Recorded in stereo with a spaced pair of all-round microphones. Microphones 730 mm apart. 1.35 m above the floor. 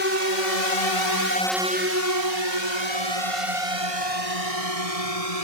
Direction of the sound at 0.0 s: 80° left.